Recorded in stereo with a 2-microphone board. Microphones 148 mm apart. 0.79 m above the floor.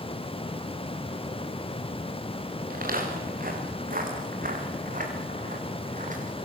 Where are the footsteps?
80° right, 7 m; by 6.5 s 60° right (ahead or behind), 6 m.